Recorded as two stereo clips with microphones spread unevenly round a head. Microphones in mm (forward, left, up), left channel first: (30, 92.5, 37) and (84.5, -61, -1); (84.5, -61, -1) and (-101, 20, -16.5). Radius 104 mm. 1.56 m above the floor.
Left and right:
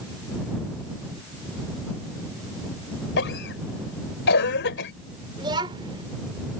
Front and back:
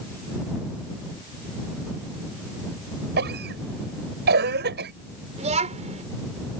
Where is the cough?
110° left.